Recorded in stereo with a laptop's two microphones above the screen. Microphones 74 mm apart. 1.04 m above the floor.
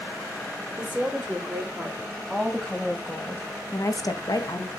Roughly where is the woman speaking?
Centre.